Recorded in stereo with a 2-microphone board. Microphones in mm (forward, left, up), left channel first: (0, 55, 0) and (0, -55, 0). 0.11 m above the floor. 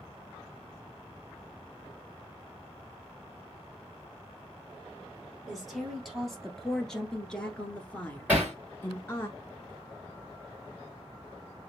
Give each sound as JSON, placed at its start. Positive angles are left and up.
{"t": 5.5, "sound": "a woman speaking", "side_deg": 0, "distance_m": 2.0}
{"t": 8.3, "sound": "hammering", "side_deg": -15, "distance_m": 2.5}